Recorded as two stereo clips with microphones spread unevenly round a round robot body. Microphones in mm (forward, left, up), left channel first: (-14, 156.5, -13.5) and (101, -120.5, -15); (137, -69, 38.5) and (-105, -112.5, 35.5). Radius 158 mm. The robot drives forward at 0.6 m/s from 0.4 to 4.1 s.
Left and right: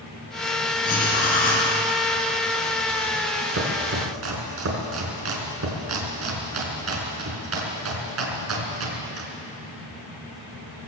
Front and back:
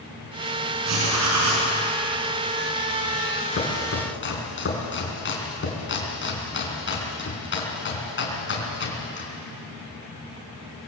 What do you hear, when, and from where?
0.8 s writing: 175° left, 4.5 m; by 1.7 s straight behind, 5 m
3.5 s chopping: 25° right, 4 m; by 9.3 s 30° right, 4 m